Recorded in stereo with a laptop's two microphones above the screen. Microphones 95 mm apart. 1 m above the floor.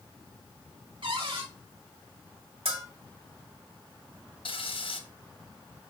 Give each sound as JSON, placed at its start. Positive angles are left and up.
{"t": 1.0, "sound": "a cupboard door", "side_deg": -60, "distance_m": 2.0}
{"t": 2.6, "sound": "a bell", "side_deg": -75, "distance_m": 2.0}
{"t": 4.5, "sound": "frying", "side_deg": 65, "distance_m": 1.1}